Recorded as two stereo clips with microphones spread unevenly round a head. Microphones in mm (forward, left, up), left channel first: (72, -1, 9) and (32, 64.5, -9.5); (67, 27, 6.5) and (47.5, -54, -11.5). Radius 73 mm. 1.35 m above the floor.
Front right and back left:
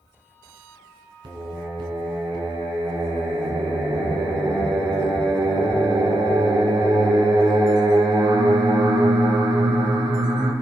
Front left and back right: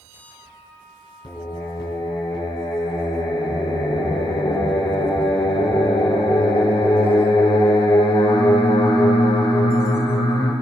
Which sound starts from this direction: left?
Singing, at 1.2 s.